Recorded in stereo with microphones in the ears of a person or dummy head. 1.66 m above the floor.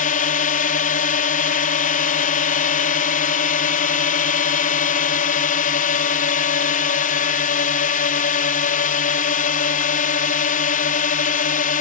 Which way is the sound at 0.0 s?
40° left (ahead or behind).